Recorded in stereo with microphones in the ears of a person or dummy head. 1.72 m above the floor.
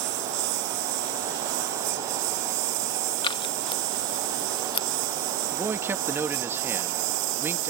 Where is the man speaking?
15° right (ahead or behind).